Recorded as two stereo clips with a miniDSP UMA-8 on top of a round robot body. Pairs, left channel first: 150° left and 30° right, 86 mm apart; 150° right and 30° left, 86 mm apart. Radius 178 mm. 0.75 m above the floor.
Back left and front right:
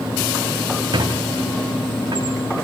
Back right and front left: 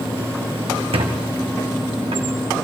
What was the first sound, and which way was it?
A squeak, 15° left.